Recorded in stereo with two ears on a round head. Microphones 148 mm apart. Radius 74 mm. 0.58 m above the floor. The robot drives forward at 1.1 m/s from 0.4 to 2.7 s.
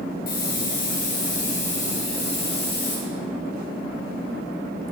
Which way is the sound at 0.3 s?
55° left (ahead or behind).